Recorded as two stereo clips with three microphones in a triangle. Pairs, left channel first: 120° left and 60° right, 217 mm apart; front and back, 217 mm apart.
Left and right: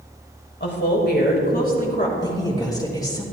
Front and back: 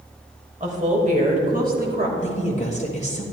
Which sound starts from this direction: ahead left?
A woman speaking, at 2.2 s.